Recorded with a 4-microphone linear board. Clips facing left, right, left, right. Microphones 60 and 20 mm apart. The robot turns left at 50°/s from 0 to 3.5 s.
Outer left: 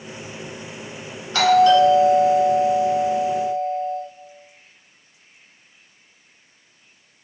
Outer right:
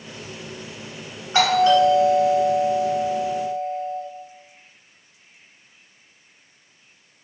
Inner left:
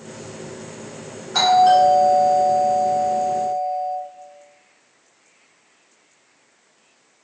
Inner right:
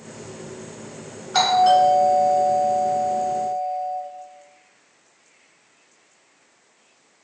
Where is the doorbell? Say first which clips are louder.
Outer left 3 dB, inner left 2 dB; 25° right (ahead or behind), 1.7 m; by 4.0 s 5° left (ahead or behind), 1.7 m.